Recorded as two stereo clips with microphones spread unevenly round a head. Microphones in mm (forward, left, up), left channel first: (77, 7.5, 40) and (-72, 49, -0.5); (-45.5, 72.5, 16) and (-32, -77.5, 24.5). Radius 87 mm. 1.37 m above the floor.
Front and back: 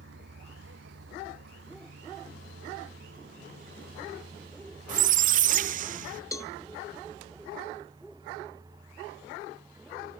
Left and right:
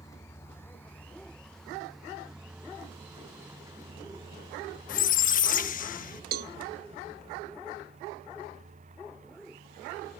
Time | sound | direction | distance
0.0 | a vehicle | 165° left | ?
4.9 | a squeak | 125° left | ?
6.3 | a cowbell | 75° right | ?